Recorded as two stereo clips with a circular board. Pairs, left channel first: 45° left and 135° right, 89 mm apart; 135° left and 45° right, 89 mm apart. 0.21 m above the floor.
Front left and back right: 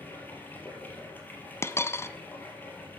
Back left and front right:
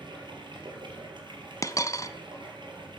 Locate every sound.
0.0 s running water: 20° right, 4 m
1.6 s a dropped coin: 95° left, 0.8 m